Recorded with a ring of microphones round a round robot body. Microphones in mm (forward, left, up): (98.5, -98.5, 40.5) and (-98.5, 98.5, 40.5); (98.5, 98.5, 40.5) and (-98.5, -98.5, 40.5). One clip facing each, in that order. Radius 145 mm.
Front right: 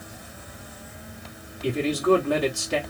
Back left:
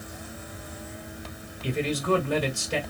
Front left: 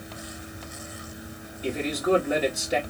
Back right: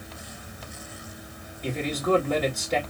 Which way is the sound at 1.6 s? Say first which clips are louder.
Front right 5 dB, front left 1 dB; 35° right.